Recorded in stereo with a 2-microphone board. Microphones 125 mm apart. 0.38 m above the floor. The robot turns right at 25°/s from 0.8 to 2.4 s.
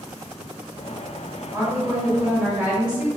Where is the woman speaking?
25° right (ahead or behind), 1.8 m; by 3.1 s 10° right (ahead or behind), 1.8 m.